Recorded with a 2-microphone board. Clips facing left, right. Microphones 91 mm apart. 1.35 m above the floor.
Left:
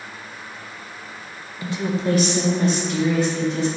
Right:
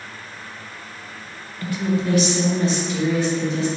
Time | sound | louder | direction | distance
1.6 | a woman speaking | right 1 dB | 15° left (ahead or behind) | 0.7 m